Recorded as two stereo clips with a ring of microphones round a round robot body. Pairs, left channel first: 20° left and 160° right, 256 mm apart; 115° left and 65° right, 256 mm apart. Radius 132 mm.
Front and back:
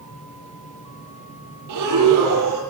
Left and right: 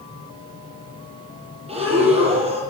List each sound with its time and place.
1.7 s breathing: 135° right, 7.5 m